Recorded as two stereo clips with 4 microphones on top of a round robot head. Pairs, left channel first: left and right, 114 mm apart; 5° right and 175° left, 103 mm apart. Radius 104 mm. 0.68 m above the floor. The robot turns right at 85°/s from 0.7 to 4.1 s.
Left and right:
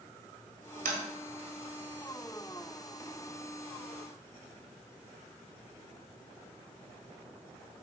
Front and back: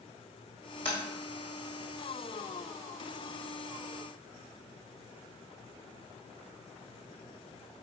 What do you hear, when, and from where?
0.8 s tapping: 85° right, 1.7 m; by 1.0 s 75° right, 1.7 m